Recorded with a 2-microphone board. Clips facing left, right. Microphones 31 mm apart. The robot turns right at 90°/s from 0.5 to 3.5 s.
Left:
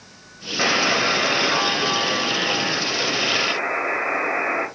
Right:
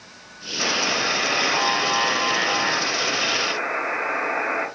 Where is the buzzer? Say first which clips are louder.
Left 3 dB; 120° left, 1.1 m; by 4.7 s 20° left, 1.1 m.